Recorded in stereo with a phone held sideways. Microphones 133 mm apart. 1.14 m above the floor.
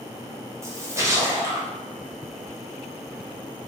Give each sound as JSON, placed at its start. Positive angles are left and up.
{"t": 0.6, "sound": "a splash", "side_deg": -20, "distance_m": 0.8}